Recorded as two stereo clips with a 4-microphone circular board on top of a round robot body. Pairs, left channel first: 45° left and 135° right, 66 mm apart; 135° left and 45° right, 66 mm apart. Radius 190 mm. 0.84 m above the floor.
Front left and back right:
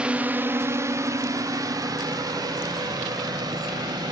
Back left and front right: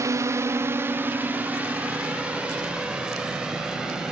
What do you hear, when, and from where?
0.0 s a drone: 65° right; by 4.1 s 125° right